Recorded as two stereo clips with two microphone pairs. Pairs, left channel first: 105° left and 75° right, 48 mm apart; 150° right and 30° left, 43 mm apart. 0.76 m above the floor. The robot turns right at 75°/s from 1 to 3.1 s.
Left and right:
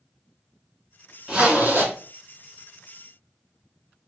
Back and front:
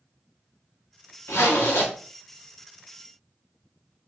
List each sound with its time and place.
1.3 s a zipper: 155° right, 2 m; by 1.9 s 105° right, 2 m